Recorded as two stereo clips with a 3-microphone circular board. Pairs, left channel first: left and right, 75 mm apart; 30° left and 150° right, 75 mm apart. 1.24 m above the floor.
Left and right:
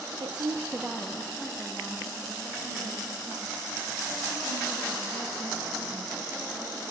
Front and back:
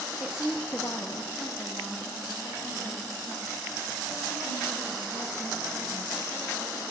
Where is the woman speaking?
85° right, 1.0 m; by 6.9 s 35° left, 10 m.